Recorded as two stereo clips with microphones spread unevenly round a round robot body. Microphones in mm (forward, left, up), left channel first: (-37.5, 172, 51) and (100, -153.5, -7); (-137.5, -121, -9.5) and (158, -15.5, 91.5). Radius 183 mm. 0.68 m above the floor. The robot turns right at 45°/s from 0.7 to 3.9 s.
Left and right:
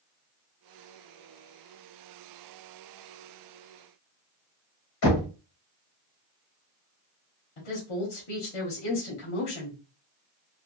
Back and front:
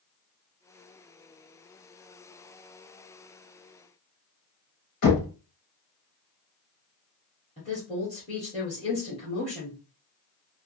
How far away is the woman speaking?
About 1.4 m.